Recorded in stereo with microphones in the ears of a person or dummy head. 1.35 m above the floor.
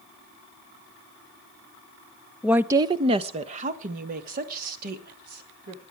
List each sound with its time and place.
2.4 s a woman speaking: 5° right (ahead or behind), 0.6 m; by 5.8 s 55° right (ahead or behind), 3 m